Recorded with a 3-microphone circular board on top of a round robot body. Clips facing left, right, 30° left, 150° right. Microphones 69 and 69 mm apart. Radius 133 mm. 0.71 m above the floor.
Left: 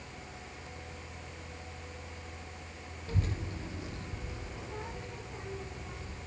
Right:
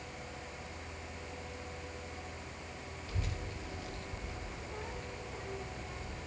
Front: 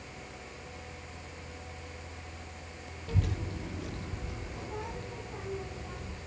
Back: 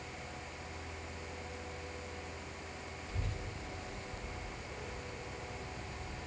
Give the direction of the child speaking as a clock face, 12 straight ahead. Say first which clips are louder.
Left 7 dB, front 11 dB; 11 o'clock.